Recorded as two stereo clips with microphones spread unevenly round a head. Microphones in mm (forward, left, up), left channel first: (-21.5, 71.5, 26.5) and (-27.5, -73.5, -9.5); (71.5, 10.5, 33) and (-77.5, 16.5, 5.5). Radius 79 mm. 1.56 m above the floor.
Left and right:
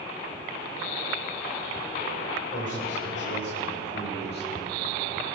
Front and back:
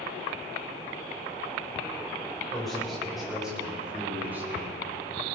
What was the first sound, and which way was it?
A man speaking, 85° left.